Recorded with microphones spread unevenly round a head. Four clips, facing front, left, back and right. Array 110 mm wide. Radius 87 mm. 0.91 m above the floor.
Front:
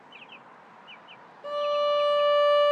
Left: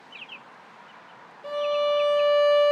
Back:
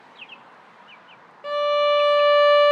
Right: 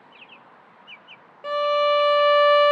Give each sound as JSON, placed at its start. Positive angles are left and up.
{"t": 1.4, "sound": "a violin", "azimuth_deg": -145, "distance_m": 0.6}